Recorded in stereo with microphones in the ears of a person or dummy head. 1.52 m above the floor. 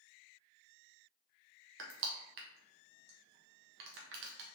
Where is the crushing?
65° right (ahead or behind), 0.8 m.